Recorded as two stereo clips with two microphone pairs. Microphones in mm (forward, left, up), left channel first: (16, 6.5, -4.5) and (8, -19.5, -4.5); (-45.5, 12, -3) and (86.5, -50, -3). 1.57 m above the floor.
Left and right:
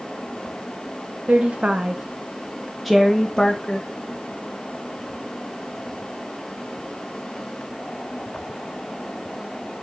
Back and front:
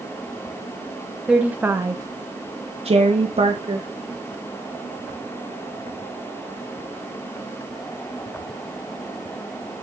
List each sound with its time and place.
1.3 s a woman speaking: 105° right, 1.0 m; by 3.9 s 10° left, 1.2 m